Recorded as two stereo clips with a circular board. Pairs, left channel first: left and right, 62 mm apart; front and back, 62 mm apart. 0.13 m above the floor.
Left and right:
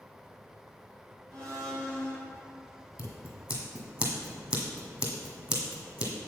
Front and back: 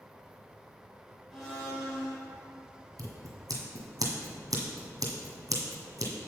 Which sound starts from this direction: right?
A blender, at 1.3 s.